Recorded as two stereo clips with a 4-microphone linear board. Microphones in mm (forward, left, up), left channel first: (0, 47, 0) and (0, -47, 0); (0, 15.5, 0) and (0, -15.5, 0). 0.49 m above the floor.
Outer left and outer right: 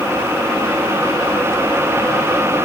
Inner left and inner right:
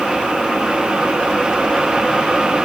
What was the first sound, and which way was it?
Only background noise.